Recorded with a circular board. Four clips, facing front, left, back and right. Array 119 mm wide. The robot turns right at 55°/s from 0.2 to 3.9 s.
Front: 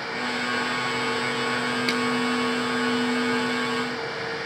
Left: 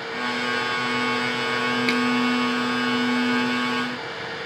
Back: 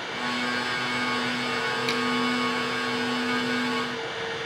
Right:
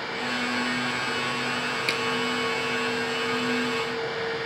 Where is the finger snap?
50° left, 4.5 m; by 2.0 s 60° left, 4.5 m.